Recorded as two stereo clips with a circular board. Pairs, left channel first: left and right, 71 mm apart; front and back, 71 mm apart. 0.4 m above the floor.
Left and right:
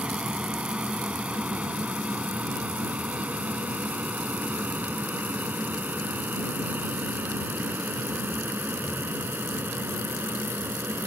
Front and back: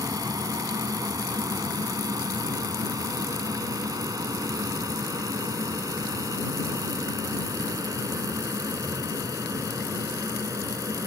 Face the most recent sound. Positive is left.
turn(degrees=-150)